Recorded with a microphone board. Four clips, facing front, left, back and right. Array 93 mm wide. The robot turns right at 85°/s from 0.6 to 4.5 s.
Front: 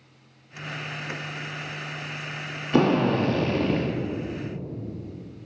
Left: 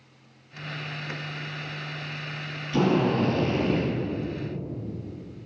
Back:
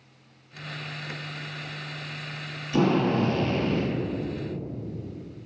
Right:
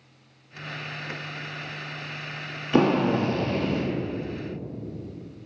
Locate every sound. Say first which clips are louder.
2.7 s a drill: right 2 dB, front 2 dB; 55° right, 1.9 m; by 3.9 s 40° left, 1.9 m